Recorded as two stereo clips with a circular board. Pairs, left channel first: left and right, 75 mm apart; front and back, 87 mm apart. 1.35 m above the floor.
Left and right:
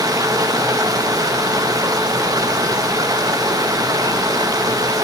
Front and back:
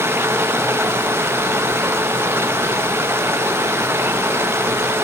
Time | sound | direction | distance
0.0 | running water | 120° right | 1.0 m